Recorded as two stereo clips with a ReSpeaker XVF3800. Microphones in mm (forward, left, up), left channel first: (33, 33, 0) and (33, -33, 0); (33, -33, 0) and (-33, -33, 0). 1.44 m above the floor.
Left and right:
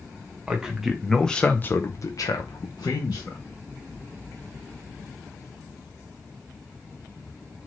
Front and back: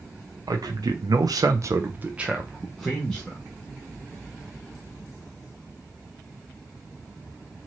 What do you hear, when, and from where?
0.5 s a man speaking: 165° right, 1.2 m; by 3.4 s 75° left, 1.3 m